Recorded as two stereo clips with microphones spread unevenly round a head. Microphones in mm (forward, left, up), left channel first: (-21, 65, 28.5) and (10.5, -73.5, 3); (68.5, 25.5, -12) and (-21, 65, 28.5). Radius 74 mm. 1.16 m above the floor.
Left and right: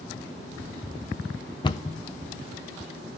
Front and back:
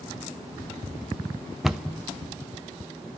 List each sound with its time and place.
1.6 s a cupboard door: 45° left, 0.6 m